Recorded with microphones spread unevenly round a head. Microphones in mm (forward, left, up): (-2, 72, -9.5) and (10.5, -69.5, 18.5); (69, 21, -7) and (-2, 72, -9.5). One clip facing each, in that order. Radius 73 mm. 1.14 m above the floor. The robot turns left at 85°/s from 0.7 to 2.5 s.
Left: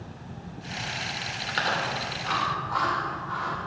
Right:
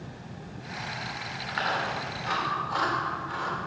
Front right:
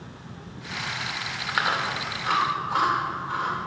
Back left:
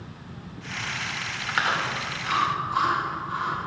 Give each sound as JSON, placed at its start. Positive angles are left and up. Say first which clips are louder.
{"t": 1.5, "sound": "chewing", "louder": "left 1 dB, even", "azimuth_deg": 55, "distance_m": 2.5}